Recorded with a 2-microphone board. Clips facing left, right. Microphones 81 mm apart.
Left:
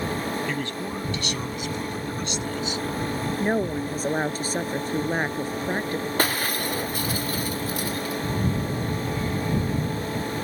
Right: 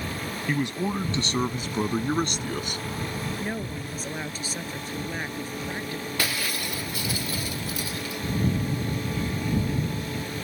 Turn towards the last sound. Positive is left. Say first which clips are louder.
# left 4 dB
turn(degrees=40)  # may be behind; listen again after turning